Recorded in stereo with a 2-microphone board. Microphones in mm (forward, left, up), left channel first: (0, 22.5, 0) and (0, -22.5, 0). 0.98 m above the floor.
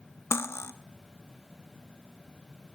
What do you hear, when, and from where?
0.3 s cutlery clinking: 80° left, 0.7 m